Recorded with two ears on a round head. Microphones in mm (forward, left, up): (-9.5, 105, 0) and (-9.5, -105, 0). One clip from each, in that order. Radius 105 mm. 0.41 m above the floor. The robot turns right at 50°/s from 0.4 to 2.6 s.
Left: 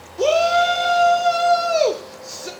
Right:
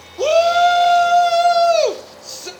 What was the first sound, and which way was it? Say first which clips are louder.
A shout: right 3 dB; 10° right (ahead or behind).